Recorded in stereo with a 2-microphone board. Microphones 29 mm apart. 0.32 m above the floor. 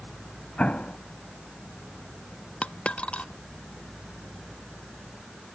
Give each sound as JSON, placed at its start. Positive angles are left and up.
{"t": 0.6, "sound": "an explosion", "side_deg": 50}
{"t": 2.6, "sound": "a dropped coin", "side_deg": 50}